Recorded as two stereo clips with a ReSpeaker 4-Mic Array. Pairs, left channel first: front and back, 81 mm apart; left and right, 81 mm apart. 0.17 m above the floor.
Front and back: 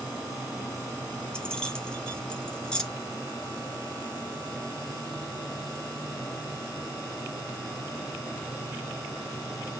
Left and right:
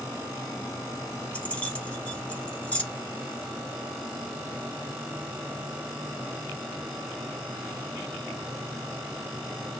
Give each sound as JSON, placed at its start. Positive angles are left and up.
{"t": 1.3, "sound": "keys jangling", "azimuth_deg": 55, "distance_m": 0.7}